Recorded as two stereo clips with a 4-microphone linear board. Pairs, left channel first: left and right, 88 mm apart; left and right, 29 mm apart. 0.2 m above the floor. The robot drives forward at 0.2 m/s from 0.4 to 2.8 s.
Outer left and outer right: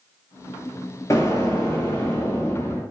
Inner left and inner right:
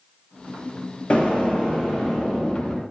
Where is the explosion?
35° left (ahead or behind), 0.6 m; by 2.8 s 25° left (ahead or behind), 0.9 m.